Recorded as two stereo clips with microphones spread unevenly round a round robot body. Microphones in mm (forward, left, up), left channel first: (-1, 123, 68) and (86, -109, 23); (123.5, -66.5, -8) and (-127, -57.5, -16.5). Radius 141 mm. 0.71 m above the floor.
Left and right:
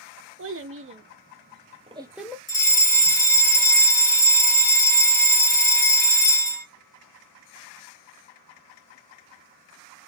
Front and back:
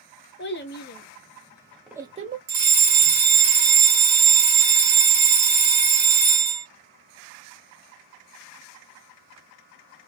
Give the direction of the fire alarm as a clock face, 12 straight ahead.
6 o'clock.